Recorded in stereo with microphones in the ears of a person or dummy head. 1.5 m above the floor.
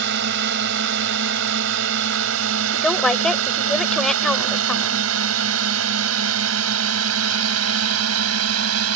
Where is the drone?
55° right (ahead or behind); by 9.0 s 85° right.